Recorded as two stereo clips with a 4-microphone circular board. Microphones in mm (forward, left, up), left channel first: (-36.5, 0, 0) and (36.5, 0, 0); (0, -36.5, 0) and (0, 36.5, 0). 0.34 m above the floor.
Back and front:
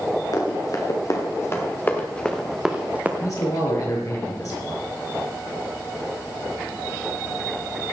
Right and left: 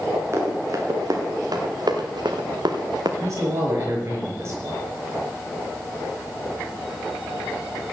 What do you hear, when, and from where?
0.3 s running footsteps: 140° left, 4 m; by 3.1 s 65° left, 2 m
3.2 s a man speaking: 140° left, 5.5 m